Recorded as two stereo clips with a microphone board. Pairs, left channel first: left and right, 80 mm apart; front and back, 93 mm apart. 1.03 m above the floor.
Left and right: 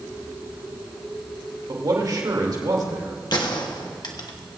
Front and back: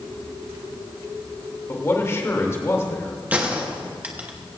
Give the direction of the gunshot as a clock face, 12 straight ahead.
8 o'clock.